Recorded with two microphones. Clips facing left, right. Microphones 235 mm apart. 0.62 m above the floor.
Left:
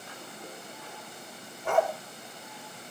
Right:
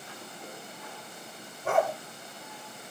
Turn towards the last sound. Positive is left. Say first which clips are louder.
# even
turn(degrees=-35)  # may be behind; listen again after turning